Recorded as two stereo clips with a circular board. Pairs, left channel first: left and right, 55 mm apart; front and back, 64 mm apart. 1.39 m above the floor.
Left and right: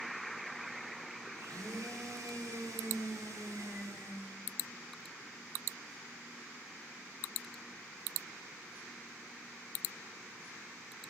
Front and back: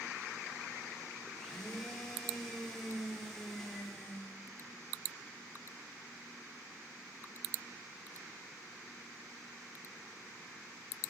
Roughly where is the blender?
Right.